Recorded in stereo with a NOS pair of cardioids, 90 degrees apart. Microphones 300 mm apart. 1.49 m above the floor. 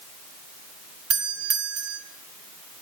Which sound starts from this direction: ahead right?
A doorbell, at 1.1 s.